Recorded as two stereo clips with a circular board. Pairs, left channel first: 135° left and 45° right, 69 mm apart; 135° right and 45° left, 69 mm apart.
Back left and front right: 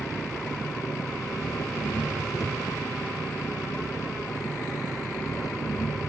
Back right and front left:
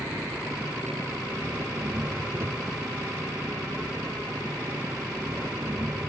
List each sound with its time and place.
0.0 s an engine running: 100° left